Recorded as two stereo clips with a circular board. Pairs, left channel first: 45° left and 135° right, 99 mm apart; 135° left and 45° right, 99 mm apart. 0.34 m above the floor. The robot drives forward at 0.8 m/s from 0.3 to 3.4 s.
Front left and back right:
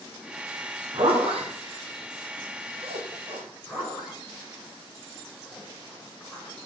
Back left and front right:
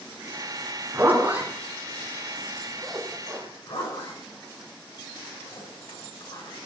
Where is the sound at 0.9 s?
115° right, 2.5 m; by 3.4 s 140° right, 4 m.